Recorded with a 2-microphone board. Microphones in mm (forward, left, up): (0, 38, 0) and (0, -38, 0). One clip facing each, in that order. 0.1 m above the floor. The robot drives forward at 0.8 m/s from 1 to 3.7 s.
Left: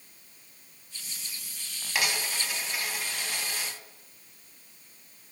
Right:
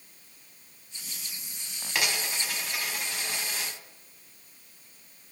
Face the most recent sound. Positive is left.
turn(degrees=0)  # may be behind; listen again after turning